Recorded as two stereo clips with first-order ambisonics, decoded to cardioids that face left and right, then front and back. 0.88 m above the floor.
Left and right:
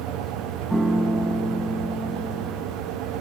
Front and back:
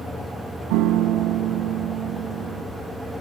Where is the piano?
175° right, 1.7 m.